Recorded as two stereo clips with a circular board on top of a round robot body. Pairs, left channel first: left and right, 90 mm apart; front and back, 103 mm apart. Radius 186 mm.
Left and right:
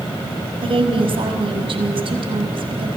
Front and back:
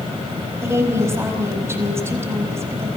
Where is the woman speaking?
115° right, 5 m.